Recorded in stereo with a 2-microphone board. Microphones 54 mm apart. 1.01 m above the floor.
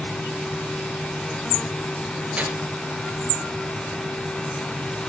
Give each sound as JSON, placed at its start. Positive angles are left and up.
{"t": 2.4, "sound": "tearing paper", "side_deg": -25, "distance_m": 3.0}